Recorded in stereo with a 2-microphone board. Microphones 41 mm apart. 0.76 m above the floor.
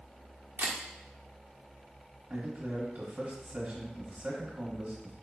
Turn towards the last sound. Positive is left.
turn(degrees=-35)  # may be behind; listen again after turning